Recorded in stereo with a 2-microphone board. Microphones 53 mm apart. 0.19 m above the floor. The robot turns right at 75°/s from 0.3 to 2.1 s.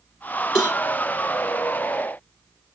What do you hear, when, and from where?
0.6 s a cowbell: 10° right (ahead or behind), 4 m; by 0.8 s 10° left (ahead or behind), 4 m